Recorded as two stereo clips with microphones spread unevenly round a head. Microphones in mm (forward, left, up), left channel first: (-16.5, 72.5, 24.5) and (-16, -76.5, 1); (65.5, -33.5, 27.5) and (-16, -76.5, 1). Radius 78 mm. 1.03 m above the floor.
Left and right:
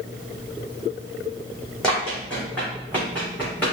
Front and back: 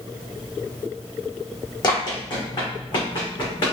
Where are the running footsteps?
10° left, 2.5 m; by 3.7 s 15° left, 3 m.